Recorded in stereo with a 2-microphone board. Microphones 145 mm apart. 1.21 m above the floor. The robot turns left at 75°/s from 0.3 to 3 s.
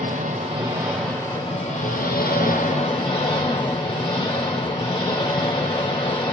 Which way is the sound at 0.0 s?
125° right.